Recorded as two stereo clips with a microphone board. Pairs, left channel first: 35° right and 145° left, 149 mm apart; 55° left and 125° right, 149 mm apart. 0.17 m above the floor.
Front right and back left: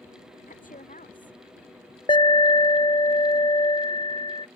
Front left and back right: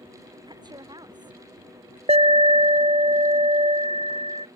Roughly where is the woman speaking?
Ahead right.